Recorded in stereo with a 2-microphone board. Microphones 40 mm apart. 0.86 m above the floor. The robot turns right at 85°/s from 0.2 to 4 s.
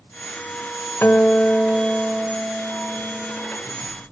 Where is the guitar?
115° left, 1.5 m; by 3.6 s 30° right, 1.5 m.